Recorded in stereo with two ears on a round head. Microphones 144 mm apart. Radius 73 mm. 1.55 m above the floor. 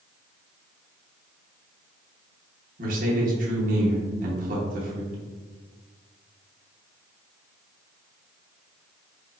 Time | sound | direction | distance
2.8 | a man speaking | 55° right (ahead or behind) | 0.9 m